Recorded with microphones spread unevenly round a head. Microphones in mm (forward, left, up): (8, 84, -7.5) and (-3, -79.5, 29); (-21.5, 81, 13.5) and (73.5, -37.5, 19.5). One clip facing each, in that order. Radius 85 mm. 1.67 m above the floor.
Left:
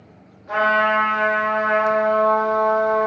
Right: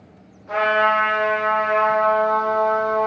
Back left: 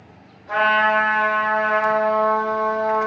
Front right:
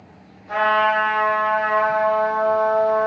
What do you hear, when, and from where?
0.5 s a trumpet: 165° left, 1.6 m